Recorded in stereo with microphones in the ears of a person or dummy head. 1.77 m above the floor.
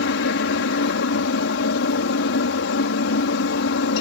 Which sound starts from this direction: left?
A helicopter, at 0.0 s.